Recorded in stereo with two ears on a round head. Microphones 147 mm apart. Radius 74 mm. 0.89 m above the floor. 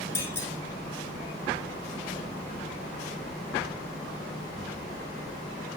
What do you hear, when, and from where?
0.1 s a clunk: 15° left (ahead or behind), 6.5 m